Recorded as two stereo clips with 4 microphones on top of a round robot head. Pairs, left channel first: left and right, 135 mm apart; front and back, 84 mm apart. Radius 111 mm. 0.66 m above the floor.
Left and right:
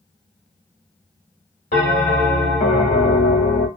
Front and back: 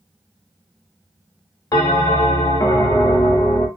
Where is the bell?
50° left, 0.9 m.